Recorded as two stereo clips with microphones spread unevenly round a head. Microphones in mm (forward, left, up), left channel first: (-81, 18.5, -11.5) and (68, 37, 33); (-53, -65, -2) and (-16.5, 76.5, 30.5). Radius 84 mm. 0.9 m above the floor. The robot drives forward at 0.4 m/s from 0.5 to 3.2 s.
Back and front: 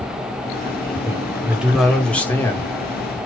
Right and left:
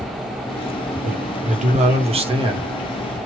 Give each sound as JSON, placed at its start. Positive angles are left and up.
{"t": 1.0, "sound": "a man speaking", "azimuth_deg": 85, "distance_m": 0.9}